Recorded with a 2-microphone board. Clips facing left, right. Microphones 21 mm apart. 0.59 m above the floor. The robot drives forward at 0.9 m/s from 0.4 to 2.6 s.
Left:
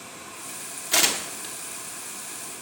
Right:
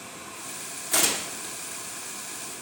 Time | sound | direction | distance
0.9 | tearing paper | 40° left (ahead or behind) | 0.7 m